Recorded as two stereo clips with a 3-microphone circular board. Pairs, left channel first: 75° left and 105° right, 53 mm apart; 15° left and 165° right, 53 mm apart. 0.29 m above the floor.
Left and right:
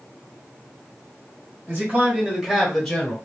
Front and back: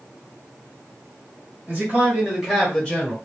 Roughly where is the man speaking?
Behind right.